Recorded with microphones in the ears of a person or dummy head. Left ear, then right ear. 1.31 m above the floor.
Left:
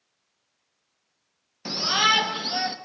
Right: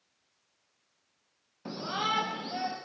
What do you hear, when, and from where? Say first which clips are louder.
1.6 s a shout: left 11 dB; 70° left (ahead or behind), 1.3 m; by 2.8 s 50° left (ahead or behind), 3 m